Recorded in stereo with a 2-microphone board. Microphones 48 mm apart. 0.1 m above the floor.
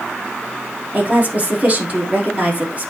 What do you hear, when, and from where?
0.9 s a woman speaking: 30° right (ahead or behind), 3.5 m